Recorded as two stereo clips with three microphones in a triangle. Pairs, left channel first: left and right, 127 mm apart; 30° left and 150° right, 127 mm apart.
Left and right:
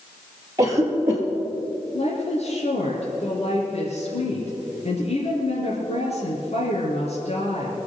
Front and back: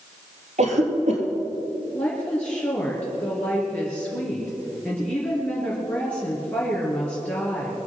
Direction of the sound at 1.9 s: 110° left.